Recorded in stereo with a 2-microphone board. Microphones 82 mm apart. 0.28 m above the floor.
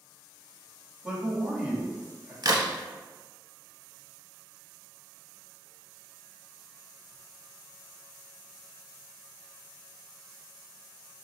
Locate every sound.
1.0 s a man speaking: 15° right (ahead or behind), 1.6 m
2.4 s a crack: 55° right (ahead or behind), 0.7 m